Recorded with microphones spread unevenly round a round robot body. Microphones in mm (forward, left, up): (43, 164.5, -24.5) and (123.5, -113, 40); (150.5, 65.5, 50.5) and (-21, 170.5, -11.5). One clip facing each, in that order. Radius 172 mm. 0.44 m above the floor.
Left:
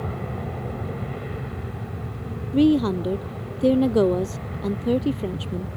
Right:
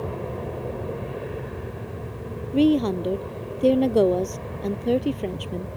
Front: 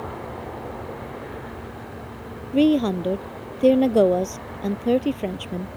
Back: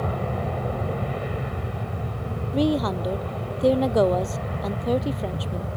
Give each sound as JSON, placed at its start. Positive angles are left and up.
{"t": 0.0, "sound": "an aircraft", "azimuth_deg": 180}
{"t": 2.5, "sound": "a woman speaking", "azimuth_deg": 25}